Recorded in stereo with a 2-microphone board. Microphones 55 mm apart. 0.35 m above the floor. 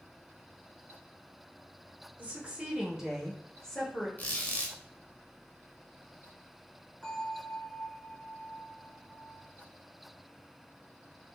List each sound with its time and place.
2.2 s a woman speaking: 30° right (ahead or behind), 1.2 m; by 4.1 s 25° left (ahead or behind), 1.2 m
4.2 s a squeak: 30° left (ahead or behind), 0.8 m
7.0 s a bell: 15° left (ahead or behind), 1.6 m